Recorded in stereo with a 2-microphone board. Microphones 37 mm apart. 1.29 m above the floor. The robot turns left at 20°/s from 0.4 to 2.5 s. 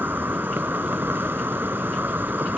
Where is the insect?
75° right; by 2.6 s 115° right.